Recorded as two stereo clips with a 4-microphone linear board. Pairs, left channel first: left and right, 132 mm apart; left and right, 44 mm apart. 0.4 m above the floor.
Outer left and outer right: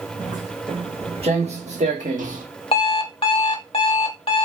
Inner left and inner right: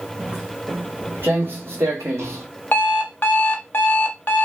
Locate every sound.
0.2 s footsteps: 30° right (ahead or behind), 1.7 m; by 2.5 s 75° right (ahead or behind), 1.2 m
2.7 s an alarm clock: 40° left (ahead or behind), 0.6 m